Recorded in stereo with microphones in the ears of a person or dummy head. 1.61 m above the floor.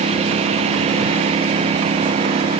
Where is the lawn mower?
35° right (ahead or behind); by 2.6 s 30° right (ahead or behind).